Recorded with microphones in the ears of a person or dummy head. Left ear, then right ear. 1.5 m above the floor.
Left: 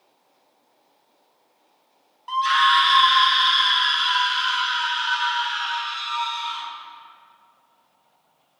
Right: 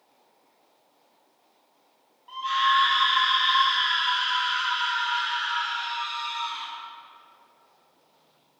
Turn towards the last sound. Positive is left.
turn(degrees=80)